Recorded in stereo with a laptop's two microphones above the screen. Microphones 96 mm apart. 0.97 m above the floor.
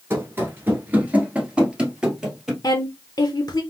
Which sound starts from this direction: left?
A woman speaking, at 2.6 s.